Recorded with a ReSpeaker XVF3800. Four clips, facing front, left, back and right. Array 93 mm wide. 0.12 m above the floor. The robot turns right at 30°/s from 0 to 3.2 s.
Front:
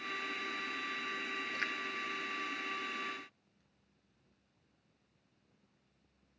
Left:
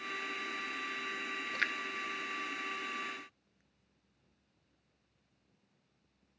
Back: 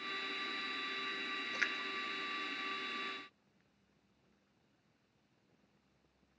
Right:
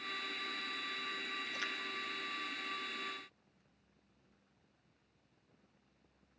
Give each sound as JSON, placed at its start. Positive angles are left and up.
{"t": 1.5, "sound": "a splash", "azimuth_deg": 100, "distance_m": 0.9}